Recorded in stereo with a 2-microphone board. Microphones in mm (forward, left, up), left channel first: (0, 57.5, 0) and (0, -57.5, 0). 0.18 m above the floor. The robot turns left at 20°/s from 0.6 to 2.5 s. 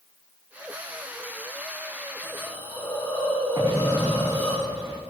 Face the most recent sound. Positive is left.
turn(degrees=-30)  # may be behind; listen again after turning